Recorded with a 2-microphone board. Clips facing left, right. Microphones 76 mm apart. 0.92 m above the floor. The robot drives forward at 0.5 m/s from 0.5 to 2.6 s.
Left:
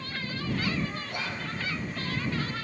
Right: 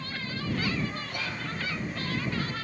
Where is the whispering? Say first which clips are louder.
Left 1 dB; 20° left (ahead or behind), 0.7 m; by 1.5 s 25° left (ahead or behind), 0.6 m.